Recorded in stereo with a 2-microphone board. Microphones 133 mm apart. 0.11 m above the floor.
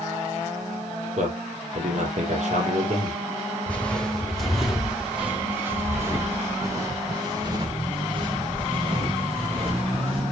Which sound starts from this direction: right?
A man speaking, at 1.2 s.